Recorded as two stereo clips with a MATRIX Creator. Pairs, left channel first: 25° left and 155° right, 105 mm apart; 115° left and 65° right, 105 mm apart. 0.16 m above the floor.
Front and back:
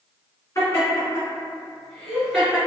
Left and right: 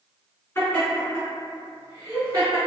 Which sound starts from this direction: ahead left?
Laughter, at 0.6 s.